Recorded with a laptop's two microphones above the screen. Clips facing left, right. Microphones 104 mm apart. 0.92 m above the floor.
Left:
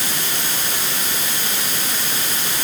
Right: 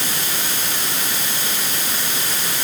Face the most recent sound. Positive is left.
No sound to turn to.